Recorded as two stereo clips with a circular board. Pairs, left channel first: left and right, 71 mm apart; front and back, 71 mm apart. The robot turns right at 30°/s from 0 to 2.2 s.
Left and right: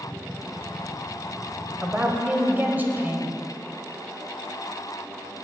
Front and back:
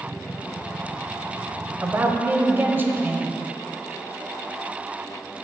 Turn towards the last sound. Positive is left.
turn(degrees=-135)